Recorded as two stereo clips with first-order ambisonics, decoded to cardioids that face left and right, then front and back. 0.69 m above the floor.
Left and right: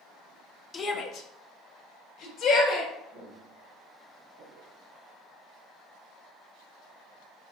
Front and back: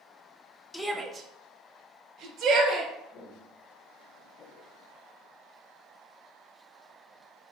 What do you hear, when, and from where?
0.7 s a shout: 65° left, 0.6 m; by 2.9 s 135° left, 2.5 m
3.1 s footsteps: 60° right, 3 m; by 4.8 s 65° right, 1.9 m